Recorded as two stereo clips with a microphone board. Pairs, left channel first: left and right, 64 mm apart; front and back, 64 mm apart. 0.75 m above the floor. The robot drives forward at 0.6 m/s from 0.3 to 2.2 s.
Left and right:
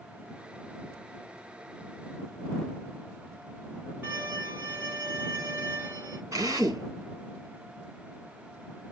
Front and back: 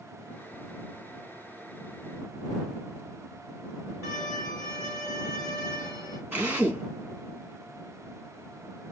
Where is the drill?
130° right, 4 m.